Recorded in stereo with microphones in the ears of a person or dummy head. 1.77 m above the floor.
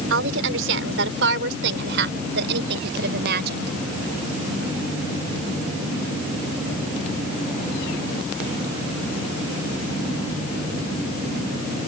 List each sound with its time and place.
0.1 s a woman speaking: 75° right (ahead or behind); by 3.7 s 60° right (ahead or behind)